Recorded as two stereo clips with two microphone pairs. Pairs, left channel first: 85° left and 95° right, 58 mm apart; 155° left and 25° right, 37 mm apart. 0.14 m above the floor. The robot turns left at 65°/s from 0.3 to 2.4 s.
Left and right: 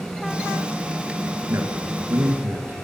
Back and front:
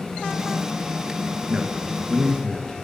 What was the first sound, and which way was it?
A man speaking, 75° right.